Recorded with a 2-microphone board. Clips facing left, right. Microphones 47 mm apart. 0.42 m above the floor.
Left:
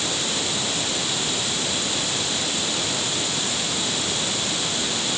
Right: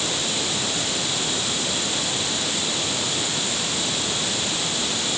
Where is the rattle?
I don't hear a rattle.